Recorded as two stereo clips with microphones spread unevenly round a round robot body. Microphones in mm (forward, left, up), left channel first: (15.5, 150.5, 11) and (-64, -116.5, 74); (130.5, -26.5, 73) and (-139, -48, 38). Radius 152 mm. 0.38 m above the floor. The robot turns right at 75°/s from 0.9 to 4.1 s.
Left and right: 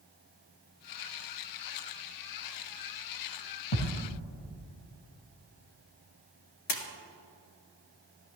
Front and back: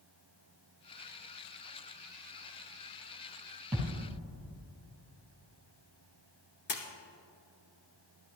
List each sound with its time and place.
3.7 s a thud: 95° left, 4 m; by 4.1 s 120° left, 4 m
6.7 s a splash: 65° left, 1.6 m